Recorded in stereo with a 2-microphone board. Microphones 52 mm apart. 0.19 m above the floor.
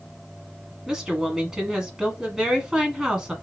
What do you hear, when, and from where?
0.9 s a woman speaking: 10° right (ahead or behind), 1.3 m